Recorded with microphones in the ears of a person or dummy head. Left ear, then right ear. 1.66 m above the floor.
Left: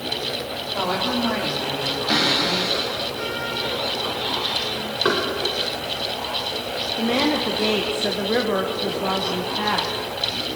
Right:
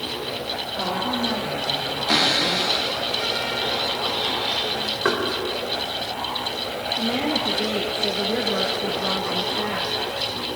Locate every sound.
0.7 s a woman speaking: 55° left (ahead or behind), 5.5 m; by 2.0 s 75° left (ahead or behind), 5 m
2.1 s a cupboard door: 20° right (ahead or behind), 1.9 m
5.0 s knocking: 20° right (ahead or behind), 4 m
7.0 s a woman speaking: 40° left (ahead or behind), 1.5 m